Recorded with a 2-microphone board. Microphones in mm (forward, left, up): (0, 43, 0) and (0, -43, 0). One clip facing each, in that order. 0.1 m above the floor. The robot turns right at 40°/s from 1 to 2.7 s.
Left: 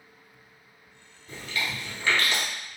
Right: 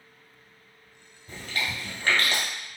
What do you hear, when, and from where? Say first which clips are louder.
1.3 s chewing: even; 35° right (ahead or behind), 1.4 m